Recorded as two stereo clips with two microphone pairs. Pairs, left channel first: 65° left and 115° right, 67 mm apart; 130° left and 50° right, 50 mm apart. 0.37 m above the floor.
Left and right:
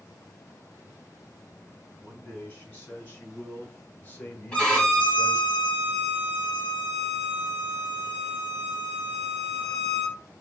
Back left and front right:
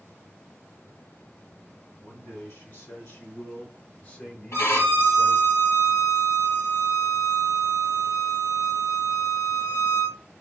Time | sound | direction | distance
2.0 | a man speaking | 120° left | 1.9 m
4.5 | a violin | 135° left | 1.5 m